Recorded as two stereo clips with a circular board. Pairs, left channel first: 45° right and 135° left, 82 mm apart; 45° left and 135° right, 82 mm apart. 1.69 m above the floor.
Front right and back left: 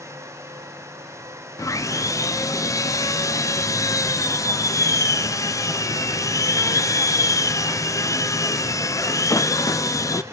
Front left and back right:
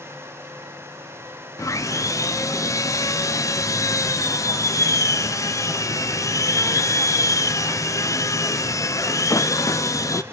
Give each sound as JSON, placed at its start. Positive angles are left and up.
{"t": 1.6, "sound": "sawing", "azimuth_deg": 0, "distance_m": 0.7}